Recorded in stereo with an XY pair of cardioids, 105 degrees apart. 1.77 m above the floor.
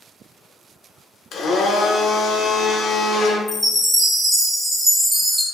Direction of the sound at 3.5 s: 5° right.